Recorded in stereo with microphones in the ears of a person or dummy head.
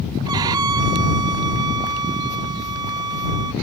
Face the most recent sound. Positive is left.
turn(degrees=-25)  # may be behind; listen again after turning